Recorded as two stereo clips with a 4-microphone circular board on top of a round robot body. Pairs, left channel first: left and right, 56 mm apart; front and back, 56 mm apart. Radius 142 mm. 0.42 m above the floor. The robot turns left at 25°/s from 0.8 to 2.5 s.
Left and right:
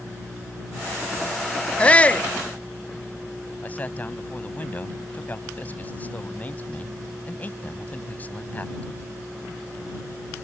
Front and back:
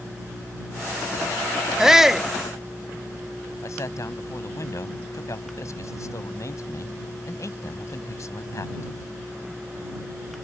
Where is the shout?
115° left; by 2.3 s 105° left.